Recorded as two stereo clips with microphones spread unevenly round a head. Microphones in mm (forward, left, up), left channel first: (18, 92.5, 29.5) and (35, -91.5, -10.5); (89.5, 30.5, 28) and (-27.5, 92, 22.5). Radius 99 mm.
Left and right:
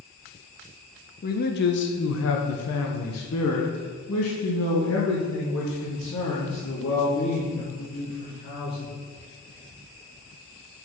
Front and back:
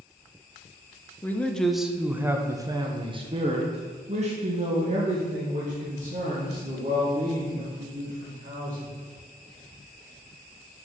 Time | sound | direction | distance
1.2 | a man speaking | 50° left | 1.1 m